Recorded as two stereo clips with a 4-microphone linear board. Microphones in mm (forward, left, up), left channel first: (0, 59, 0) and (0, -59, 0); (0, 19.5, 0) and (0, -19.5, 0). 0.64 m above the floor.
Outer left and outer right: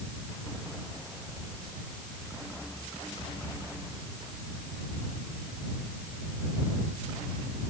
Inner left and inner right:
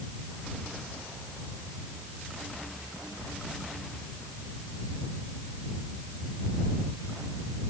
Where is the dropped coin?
I don't hear a dropped coin.